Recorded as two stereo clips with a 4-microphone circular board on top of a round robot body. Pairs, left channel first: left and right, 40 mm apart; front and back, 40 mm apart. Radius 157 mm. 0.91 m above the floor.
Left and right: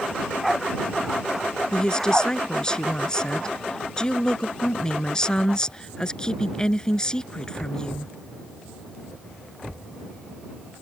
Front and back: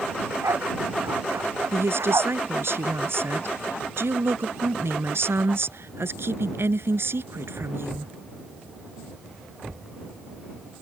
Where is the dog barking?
175° right.